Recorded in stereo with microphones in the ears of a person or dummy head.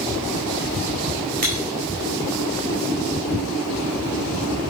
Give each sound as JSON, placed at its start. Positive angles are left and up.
{"t": 1.4, "sound": "breaking glass", "side_deg": -45, "distance_m": 3.5}